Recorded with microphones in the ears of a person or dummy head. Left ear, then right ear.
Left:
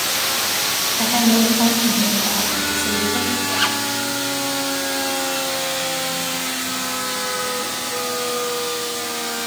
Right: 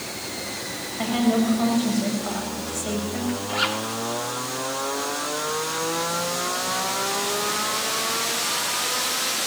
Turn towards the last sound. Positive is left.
turn(degrees=-35)  # may be behind; listen again after turning